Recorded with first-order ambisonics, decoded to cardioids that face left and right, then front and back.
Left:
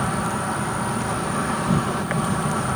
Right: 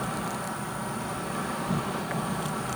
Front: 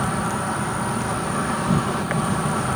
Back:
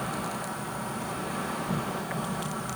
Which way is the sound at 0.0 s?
40° left.